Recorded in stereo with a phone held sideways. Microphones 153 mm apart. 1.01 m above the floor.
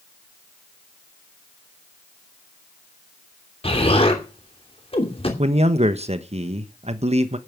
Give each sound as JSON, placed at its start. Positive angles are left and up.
{"t": 3.6, "sound": "an explosion", "side_deg": 40, "distance_m": 2.5}
{"t": 5.4, "sound": "a man speaking", "side_deg": -45, "distance_m": 1.1}